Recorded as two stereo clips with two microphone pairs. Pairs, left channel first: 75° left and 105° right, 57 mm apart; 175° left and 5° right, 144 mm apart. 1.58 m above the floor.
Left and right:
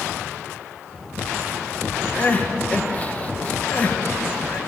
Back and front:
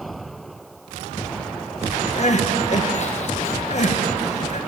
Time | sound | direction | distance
2.2 | crying | 140° left | 1.3 m